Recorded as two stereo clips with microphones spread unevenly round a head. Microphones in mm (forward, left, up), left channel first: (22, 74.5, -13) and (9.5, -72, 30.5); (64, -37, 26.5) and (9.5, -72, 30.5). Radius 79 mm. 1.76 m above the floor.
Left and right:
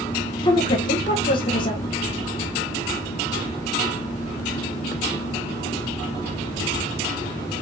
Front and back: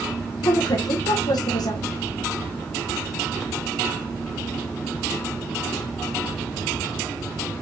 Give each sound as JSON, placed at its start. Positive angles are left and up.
{"t": 0.4, "sound": "a woman speaking", "azimuth_deg": 20, "distance_m": 1.4}